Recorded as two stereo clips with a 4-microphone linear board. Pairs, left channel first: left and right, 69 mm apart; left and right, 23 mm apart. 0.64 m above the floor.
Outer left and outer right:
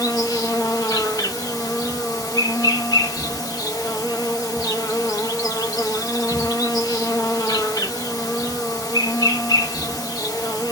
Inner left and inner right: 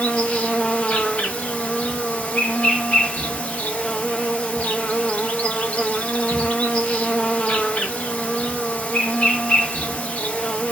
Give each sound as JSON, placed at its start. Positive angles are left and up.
{"t": 0.0, "sound": "an insect", "side_deg": 65, "distance_m": 1.2}